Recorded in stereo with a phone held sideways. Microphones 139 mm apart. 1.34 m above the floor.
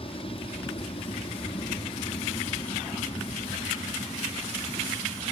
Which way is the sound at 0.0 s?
40° left (ahead or behind).